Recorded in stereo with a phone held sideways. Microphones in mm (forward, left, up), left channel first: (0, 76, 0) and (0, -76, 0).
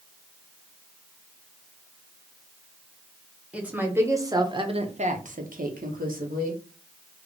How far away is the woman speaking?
About 1.2 m.